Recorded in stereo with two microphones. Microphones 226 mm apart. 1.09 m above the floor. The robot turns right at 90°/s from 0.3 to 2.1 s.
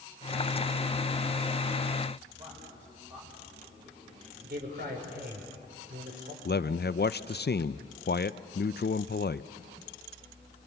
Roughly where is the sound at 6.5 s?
Left.